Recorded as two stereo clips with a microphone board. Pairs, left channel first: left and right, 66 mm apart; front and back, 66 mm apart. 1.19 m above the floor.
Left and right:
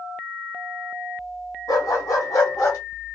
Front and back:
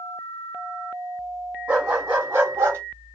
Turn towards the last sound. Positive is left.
turn(degrees=135)